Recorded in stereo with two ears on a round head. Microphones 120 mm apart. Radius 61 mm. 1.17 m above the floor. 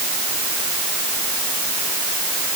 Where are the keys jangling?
No keys jangling in this recording.